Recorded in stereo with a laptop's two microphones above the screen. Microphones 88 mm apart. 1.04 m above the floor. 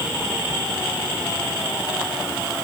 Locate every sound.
Only background noise.